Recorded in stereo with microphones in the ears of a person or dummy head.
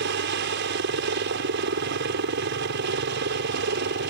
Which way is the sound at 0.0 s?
50° right (ahead or behind).